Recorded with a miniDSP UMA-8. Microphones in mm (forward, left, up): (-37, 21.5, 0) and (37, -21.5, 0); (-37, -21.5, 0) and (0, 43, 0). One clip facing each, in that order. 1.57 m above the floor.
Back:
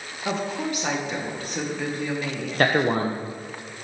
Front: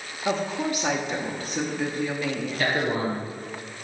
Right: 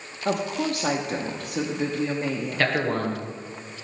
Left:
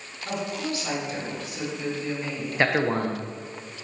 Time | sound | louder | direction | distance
0.2 | a woman speaking | front 1 dB, right 5 dB | 115° right | 0.8 m
2.6 | a man speaking | back 5 dB, left 2 dB | 130° left | 0.8 m